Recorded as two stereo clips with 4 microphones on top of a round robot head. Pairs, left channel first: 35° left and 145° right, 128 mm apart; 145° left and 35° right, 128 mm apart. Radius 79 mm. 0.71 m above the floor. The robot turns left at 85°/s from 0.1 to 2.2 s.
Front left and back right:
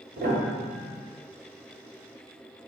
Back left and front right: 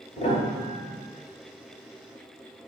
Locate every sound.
0.2 s a piano: 165° right, 1.0 m; by 1.0 s 120° left, 1.0 m